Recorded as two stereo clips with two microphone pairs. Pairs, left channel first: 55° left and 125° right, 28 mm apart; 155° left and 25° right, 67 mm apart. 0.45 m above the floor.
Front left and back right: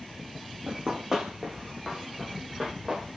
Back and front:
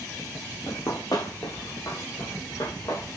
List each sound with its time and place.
0.7 s running footsteps: straight behind, 0.7 m; by 3.1 s 160° left, 3.5 m